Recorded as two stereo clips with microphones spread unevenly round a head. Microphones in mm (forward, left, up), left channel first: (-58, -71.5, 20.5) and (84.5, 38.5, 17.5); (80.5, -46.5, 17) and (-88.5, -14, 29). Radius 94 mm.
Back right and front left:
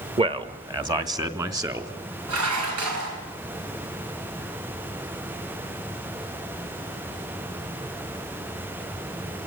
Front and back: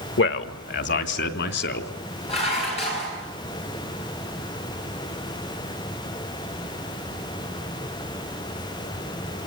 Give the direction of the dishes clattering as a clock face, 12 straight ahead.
10 o'clock.